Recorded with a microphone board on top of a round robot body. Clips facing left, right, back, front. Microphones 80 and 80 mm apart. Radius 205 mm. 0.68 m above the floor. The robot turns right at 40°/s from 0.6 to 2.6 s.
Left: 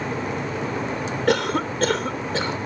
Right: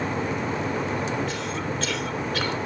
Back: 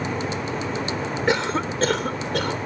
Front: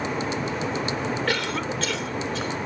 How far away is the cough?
About 1.0 m.